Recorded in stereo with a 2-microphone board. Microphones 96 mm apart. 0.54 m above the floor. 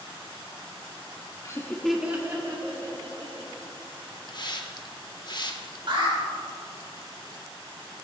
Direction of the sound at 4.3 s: 50° left (ahead or behind).